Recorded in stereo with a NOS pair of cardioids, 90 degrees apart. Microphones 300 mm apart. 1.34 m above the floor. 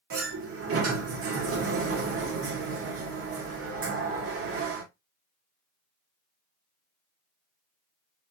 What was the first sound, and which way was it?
A sliding door, 50° right.